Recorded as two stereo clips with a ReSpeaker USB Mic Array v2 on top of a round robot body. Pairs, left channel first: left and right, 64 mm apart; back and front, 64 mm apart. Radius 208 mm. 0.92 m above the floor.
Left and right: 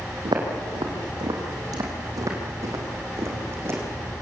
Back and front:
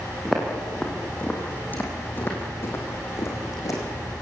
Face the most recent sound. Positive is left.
turn(degrees=-145)